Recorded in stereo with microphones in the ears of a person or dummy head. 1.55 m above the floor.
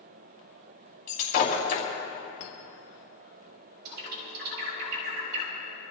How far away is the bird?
About 3 m.